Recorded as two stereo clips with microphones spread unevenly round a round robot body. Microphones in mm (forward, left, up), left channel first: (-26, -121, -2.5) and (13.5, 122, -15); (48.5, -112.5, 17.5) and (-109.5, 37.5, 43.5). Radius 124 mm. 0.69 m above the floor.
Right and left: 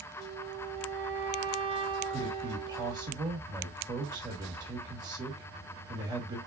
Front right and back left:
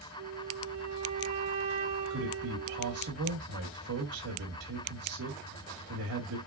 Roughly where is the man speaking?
Behind left.